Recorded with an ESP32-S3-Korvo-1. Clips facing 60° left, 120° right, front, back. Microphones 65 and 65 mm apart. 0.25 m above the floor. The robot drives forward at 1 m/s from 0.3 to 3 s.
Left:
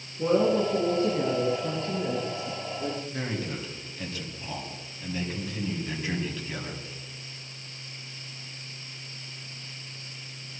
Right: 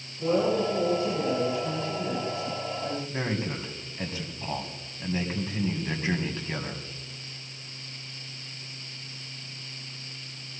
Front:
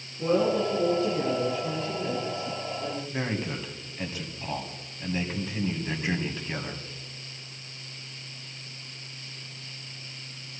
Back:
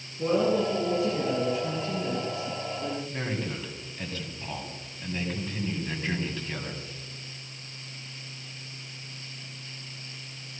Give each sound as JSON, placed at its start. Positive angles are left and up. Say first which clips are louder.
{"t": 0.2, "sound": "a woman speaking", "louder": "left 2 dB, even", "azimuth_deg": 95, "distance_m": 6.0}
{"t": 3.1, "sound": "a man speaking", "louder": "right 2 dB, front 1 dB", "azimuth_deg": -70, "distance_m": 2.0}